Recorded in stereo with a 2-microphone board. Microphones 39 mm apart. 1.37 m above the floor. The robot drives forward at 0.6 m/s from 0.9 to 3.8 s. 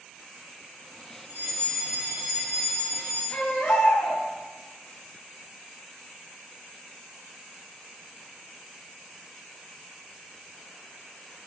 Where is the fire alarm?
70° right (ahead or behind), 3.5 m; by 3.2 s 60° right (ahead or behind), 4 m.